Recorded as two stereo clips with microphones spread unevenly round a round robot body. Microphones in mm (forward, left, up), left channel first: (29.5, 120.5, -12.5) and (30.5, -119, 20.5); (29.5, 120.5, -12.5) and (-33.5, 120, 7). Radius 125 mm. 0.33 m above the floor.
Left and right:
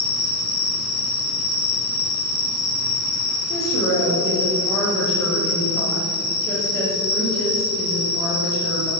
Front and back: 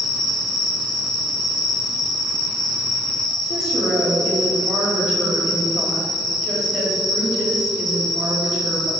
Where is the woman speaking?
170° left, 1.3 m.